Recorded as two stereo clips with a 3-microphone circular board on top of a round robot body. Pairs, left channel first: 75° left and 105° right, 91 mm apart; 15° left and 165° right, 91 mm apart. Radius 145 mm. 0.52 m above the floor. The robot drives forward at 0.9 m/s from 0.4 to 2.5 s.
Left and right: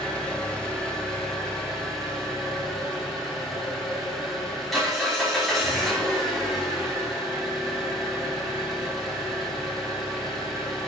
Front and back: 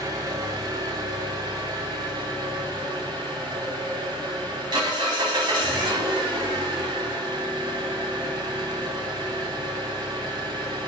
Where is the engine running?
155° left, 3.5 m; by 10.9 s 160° left, 5.5 m.